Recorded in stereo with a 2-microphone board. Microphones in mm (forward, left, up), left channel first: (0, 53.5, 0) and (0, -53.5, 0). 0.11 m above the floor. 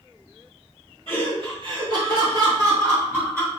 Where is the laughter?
55° right (ahead or behind), 2.0 m; by 3.5 s 20° right (ahead or behind), 1.5 m.